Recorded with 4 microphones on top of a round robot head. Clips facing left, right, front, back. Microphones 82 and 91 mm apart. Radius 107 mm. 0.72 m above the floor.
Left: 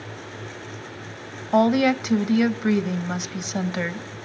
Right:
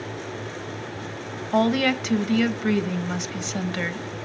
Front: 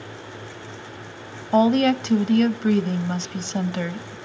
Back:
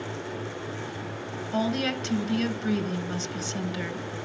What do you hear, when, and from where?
1.5 s a woman speaking: 15° left, 1.3 m